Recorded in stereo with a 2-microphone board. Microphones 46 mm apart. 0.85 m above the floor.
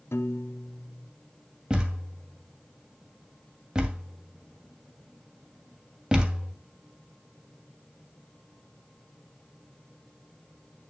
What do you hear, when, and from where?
0.1 s a piano: 65° left (ahead or behind), 0.6 m
1.7 s a thud: 20° right (ahead or behind), 2.5 m